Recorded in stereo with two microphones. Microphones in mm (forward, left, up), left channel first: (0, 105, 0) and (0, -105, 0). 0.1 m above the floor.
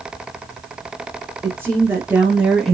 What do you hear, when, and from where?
1.4 s a woman speaking: 15° right (ahead or behind), 2 m; by 2.7 s centre (ahead or behind), 1.6 m